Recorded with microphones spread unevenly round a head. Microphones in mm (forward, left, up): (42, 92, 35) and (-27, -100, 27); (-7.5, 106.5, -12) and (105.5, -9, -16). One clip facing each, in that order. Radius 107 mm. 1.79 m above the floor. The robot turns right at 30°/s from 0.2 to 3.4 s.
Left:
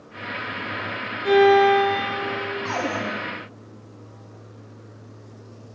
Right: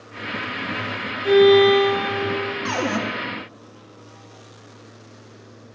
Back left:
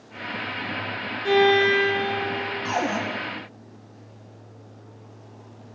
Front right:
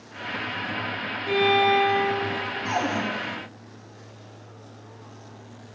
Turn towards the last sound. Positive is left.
turn(degrees=-140)